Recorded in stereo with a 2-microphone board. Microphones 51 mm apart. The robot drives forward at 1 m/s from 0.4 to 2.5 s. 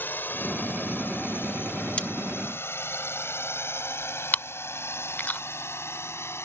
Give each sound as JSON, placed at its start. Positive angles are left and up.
{"t": 0.0, "sound": "a drone", "side_deg": 40}
{"t": 2.0, "sound": "cutlery clinking", "side_deg": 20}
{"t": 4.3, "sound": "chewing", "side_deg": 40}